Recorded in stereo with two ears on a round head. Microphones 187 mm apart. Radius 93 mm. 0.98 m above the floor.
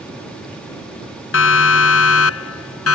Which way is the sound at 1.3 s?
65° left (ahead or behind).